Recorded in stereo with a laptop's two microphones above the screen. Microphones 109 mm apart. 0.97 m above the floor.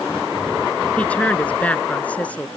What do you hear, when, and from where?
1.0 s a woman speaking: 10° left (ahead or behind)